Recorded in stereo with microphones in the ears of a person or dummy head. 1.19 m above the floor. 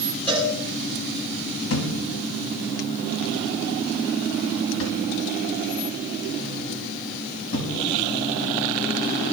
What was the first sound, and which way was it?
A cowbell, 10° left (ahead or behind).